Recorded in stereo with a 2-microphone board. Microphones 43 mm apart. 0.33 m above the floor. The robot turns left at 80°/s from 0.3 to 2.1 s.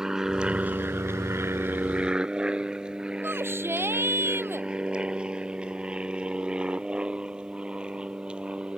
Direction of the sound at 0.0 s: 15° right (ahead or behind).